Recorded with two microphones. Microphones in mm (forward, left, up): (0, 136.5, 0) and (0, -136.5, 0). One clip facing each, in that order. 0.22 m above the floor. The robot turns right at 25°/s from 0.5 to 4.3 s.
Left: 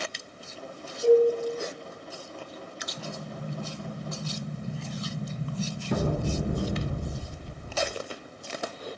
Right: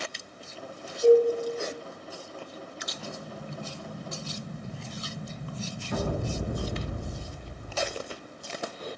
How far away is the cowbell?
About 1.8 m.